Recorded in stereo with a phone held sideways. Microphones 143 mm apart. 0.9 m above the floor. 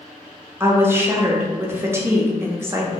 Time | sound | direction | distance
0.6 | a woman speaking | 15° right (ahead or behind) | 0.6 m